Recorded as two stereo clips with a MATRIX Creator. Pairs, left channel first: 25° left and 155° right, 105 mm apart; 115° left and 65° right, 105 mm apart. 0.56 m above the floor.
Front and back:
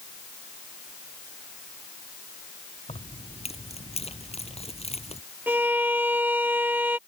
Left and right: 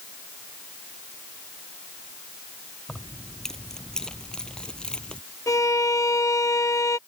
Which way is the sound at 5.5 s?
140° left.